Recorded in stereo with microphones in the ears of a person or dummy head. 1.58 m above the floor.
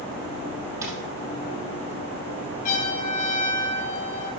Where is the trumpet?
50° left (ahead or behind), 4.5 m.